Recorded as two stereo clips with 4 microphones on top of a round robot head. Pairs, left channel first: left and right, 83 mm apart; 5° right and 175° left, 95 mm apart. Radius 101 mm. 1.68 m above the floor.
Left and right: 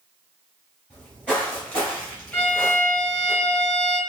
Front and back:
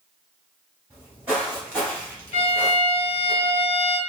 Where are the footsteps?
130° right, 1.7 m; by 3.3 s 20° left, 1.7 m.